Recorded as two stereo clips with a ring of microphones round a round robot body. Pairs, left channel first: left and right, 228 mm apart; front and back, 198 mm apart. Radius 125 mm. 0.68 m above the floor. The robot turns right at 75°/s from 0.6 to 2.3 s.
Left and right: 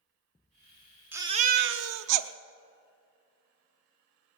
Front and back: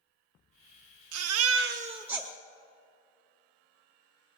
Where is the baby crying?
170° right, 0.6 m; by 2.3 s 85° right, 0.6 m.